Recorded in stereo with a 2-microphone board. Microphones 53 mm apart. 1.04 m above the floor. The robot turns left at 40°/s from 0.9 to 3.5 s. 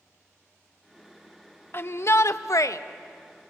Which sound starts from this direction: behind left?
A shout, at 1.7 s.